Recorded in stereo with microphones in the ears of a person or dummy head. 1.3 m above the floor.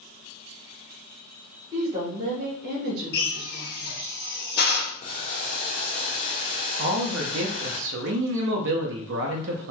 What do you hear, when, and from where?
1.7 s a woman speaking: 20° right (ahead or behind), 1.7 m; by 4.1 s 70° right (ahead or behind), 1.4 m
3.1 s a drill: 55° left (ahead or behind), 1.0 m
5.0 s boiling: 40° left (ahead or behind), 1.4 m
6.8 s a man speaking: 70° right (ahead or behind), 0.6 m